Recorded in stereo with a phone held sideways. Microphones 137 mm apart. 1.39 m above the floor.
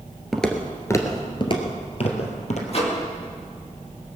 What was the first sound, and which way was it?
Footsteps, centre (ahead or behind).